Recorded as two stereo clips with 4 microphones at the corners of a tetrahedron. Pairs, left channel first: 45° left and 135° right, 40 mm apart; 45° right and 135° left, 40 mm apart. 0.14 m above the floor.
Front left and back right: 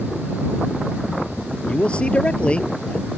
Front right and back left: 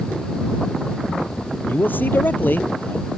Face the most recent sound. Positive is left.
turn(degrees=-15)